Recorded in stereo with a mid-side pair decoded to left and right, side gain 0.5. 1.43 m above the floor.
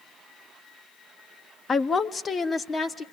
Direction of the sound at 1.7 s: 35° left.